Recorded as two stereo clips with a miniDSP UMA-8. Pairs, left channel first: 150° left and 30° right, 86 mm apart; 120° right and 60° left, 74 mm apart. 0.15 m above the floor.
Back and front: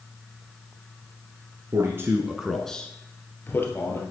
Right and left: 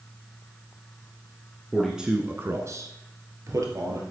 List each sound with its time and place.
1.7 s a man speaking: 35° right, 1.3 m; by 4.0 s 95° left, 3 m